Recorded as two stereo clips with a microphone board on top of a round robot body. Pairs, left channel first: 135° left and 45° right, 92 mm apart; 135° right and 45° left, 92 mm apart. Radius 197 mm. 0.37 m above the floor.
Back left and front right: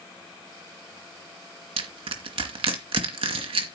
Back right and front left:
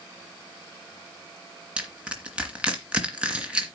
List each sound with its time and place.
1.8 s crushing: 35° right, 2.5 m